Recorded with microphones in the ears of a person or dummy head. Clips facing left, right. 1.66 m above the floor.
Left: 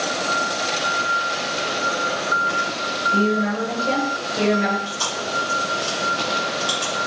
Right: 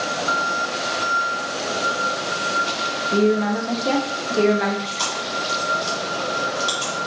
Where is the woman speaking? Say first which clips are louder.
Right 3 dB; 65° right (ahead or behind), 0.7 m.